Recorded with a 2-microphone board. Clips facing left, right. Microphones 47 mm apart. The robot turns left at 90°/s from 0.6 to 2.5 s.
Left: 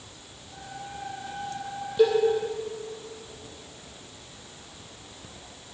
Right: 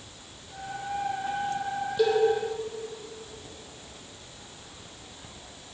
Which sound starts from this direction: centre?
A cowbell, at 2.0 s.